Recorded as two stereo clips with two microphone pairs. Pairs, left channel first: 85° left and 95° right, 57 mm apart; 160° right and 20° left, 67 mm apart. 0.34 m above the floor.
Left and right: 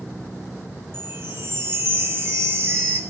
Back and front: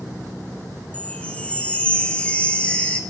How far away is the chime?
About 1.6 m.